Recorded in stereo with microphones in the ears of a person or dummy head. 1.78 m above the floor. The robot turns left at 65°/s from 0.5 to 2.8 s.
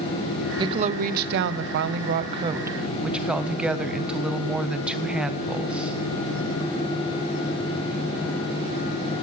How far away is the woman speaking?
About 0.7 m.